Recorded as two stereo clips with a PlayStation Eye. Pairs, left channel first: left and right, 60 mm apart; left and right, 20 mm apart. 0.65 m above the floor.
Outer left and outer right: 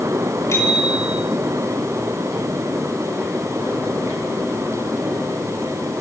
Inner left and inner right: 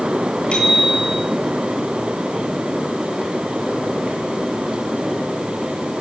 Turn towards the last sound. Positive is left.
turn(degrees=45)  # may be behind; listen again after turning